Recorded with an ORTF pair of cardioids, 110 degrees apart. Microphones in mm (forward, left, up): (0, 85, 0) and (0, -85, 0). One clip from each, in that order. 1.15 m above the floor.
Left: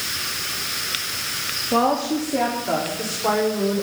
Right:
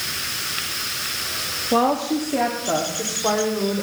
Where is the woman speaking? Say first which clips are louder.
Right 1 dB; 15° right, 1.9 m; by 3.8 s 5° right, 4 m.